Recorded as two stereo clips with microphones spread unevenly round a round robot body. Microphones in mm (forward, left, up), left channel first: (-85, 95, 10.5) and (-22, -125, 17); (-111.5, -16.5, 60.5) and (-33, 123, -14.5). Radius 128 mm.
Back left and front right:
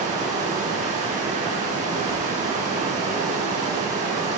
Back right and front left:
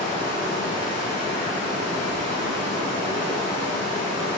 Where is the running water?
Straight ahead, 3.5 m.